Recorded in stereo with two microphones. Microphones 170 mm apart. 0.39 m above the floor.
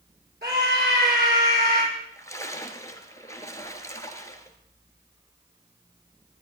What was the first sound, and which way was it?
A scream, 80° right.